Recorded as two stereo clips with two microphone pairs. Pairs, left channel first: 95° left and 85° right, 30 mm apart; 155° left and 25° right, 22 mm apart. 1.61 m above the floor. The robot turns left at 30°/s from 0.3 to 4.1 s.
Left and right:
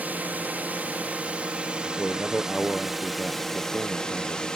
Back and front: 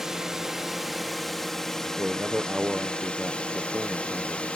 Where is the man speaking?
5° right; by 4.5 s 75° right.